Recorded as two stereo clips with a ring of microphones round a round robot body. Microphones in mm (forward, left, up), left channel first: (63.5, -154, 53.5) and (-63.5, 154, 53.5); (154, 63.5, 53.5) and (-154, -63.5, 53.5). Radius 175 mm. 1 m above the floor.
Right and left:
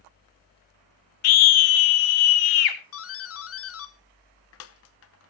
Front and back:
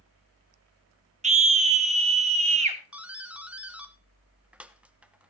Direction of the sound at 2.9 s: 75° right.